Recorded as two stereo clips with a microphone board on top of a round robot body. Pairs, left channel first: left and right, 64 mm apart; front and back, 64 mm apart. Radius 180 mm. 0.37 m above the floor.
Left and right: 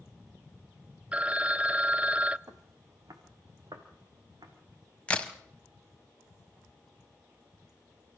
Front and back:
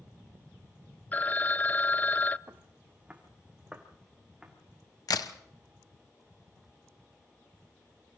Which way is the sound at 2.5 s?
125° right.